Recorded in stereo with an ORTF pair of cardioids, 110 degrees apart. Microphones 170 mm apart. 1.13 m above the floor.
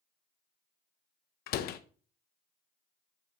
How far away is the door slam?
About 0.6 m.